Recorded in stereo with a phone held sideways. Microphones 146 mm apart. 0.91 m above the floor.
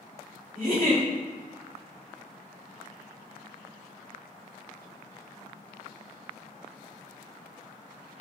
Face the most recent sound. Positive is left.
turn(degrees=-60)  # may be behind; listen again after turning